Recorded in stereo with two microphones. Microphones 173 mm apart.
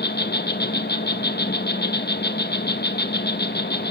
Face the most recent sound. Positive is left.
turn(degrees=70)  # may be behind; listen again after turning